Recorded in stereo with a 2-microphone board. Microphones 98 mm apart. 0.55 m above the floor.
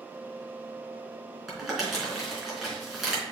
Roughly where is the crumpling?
Centre.